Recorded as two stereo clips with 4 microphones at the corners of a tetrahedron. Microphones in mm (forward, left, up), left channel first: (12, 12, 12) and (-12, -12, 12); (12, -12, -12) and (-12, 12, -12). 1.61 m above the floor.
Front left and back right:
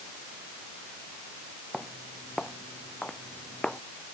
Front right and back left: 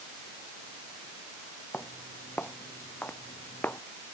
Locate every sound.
1.7 s footsteps: 25° right